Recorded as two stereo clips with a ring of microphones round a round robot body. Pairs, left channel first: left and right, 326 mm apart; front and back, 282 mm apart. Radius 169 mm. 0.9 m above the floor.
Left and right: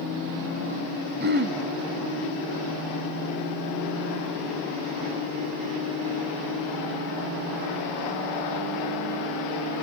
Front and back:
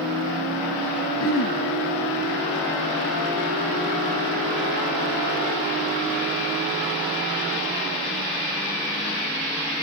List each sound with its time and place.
1.2 s throat clearing: 35° right, 1.0 m